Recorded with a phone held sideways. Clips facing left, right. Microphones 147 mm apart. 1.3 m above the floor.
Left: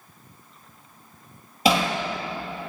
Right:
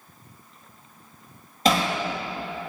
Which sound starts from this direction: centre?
Hammering, at 1.6 s.